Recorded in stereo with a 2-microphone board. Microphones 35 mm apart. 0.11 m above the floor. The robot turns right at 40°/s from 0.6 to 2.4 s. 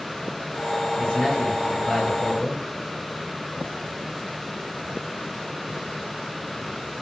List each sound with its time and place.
1.0 s a man speaking: 25° left (ahead or behind), 1.5 m; by 2.6 s 10° left (ahead or behind), 1.5 m